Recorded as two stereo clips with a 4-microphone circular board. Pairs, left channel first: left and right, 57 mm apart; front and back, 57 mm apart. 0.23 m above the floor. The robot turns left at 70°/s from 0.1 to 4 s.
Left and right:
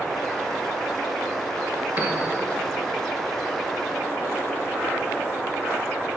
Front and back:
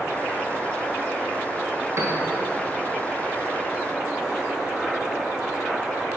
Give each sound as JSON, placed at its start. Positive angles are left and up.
{"t": 2.0, "sound": "a piano", "azimuth_deg": -145, "distance_m": 1.4}